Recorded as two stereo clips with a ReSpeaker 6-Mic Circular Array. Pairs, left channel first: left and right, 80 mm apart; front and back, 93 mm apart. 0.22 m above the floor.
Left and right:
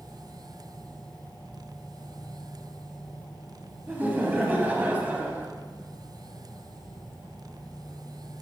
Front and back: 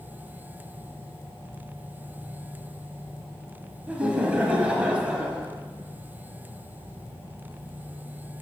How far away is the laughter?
About 1.0 m.